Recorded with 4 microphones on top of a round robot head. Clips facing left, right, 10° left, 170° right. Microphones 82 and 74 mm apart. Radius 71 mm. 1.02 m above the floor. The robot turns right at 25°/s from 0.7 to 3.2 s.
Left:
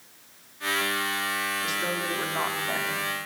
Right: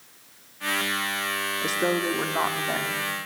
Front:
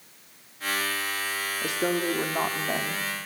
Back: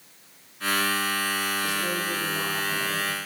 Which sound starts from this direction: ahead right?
A woman speaking, at 1.6 s.